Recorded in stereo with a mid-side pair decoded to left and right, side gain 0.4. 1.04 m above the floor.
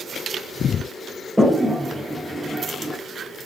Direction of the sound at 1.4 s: Straight ahead.